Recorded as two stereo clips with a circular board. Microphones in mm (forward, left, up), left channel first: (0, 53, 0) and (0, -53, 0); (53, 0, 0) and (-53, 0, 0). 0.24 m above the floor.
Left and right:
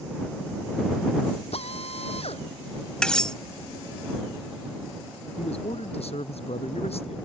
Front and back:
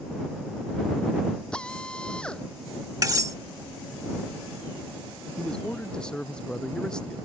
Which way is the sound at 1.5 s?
80° left.